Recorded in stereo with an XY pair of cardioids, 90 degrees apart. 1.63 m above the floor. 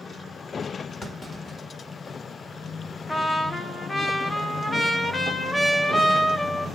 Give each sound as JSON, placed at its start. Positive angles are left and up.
{"t": 1.0, "sound": "a clunk", "azimuth_deg": 40, "distance_m": 2.0}
{"t": 3.1, "sound": "a trumpet", "azimuth_deg": 25, "distance_m": 1.1}